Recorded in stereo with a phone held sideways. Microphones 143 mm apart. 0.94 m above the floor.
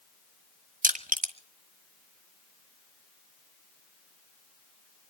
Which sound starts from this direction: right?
Crushing, at 0.8 s.